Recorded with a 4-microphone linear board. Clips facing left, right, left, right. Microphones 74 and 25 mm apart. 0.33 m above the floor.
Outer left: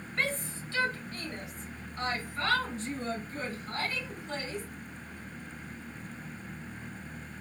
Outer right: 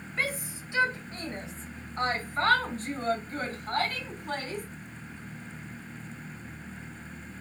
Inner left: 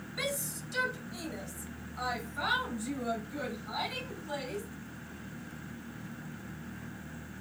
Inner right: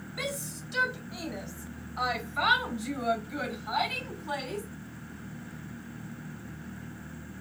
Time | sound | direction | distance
0.2 | a shout | 5° right (ahead or behind) | 1.3 m